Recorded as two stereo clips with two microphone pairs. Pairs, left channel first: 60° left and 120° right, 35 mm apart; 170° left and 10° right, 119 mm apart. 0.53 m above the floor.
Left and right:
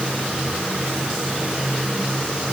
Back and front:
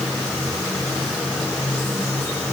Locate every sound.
Only background noise.